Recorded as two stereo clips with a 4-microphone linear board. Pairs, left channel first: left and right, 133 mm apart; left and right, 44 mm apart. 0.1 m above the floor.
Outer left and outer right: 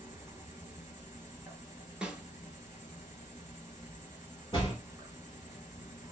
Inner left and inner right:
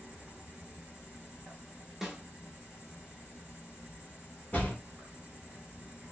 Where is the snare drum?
5° right (ahead or behind), 0.7 m.